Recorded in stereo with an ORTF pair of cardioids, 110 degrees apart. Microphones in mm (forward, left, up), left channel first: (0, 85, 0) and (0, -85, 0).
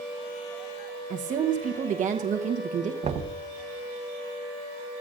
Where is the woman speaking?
50° right, 1.0 m.